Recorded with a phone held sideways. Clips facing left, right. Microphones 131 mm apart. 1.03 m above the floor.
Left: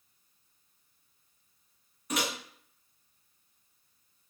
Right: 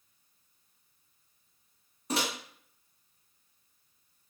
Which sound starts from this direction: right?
A microwave, at 2.1 s.